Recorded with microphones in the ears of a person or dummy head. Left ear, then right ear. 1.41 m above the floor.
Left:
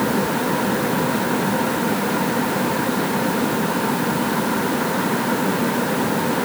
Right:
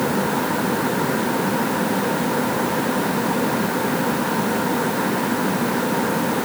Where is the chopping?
I don't hear chopping.